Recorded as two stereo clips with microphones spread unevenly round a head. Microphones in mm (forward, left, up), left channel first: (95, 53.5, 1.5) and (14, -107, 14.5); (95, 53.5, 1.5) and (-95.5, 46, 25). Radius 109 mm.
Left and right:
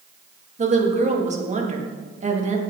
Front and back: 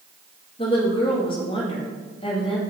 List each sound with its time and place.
0.6 s a woman speaking: 65° right, 2 m